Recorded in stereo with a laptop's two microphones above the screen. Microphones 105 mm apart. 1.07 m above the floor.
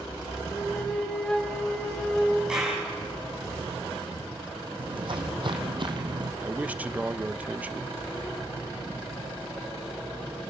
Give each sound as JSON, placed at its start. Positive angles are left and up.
{"t": 0.5, "sound": "a flute", "side_deg": 10, "distance_m": 2.5}
{"t": 2.5, "sound": "a clap", "side_deg": -10, "distance_m": 6.5}
{"t": 4.8, "sound": "footsteps", "side_deg": -55, "distance_m": 3.5}
{"t": 6.4, "sound": "a man speaking", "side_deg": -15, "distance_m": 0.9}